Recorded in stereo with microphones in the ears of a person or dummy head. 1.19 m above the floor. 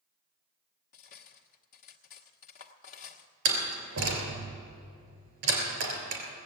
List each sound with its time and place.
0.9 s cutlery clinking: 45° left (ahead or behind), 1.0 m
3.5 s a door slam: 65° right (ahead or behind), 3 m